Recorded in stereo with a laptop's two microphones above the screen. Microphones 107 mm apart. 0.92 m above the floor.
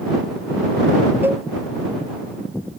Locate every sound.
1.2 s a cowbell: 20° right (ahead or behind)